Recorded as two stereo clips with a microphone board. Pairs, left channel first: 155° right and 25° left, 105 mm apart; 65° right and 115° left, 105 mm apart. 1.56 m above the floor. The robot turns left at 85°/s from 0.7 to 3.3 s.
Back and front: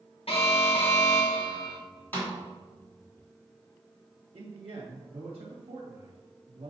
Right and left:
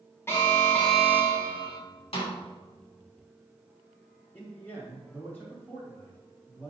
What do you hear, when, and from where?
0.3 s an alarm: 135° right, 1.5 m; by 1.8 s 135° left, 1.5 m
2.1 s a snare drum: 85° right, 3 m; by 2.3 s 105° right, 3 m
4.3 s a man speaking: 5° left, 2.5 m